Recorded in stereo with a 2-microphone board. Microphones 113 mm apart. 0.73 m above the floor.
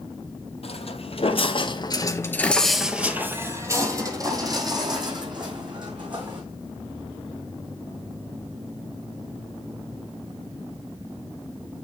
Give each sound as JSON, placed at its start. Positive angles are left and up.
{"t": 0.6, "sound": "footsteps", "side_deg": 60, "distance_m": 1.5}